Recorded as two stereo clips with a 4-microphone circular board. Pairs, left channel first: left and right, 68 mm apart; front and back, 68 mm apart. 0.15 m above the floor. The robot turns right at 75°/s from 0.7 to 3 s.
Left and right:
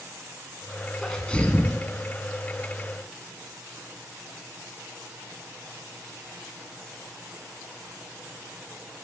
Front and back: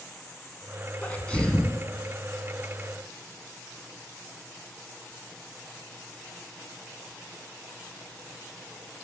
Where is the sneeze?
20° left, 1.7 m; by 1.8 s 75° left, 1.7 m.